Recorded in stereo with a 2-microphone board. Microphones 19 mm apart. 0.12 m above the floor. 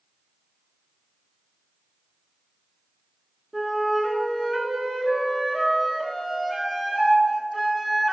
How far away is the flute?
About 1.6 m.